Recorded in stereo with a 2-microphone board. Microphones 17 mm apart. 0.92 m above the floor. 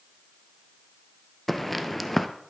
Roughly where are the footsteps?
Centre.